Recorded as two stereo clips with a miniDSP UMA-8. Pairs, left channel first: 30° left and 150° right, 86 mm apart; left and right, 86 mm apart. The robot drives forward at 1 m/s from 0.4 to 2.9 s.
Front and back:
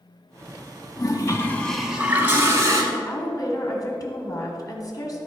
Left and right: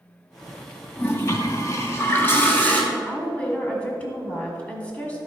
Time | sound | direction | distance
1.0 | a toilet flushing | 35° left | 0.9 m
2.9 | a woman speaking | 25° left | 1.5 m